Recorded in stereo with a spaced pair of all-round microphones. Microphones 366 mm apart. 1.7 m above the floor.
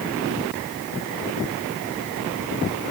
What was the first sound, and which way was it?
Only background noise.